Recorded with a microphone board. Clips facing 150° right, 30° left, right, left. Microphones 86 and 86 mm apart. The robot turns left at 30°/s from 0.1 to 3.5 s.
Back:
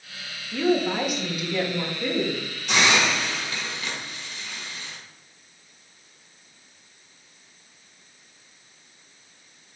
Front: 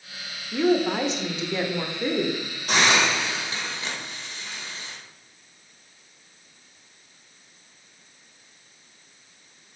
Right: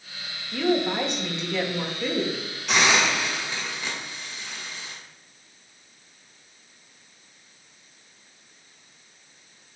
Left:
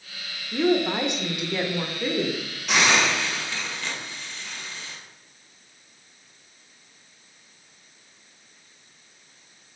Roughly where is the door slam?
I don't hear a door slam.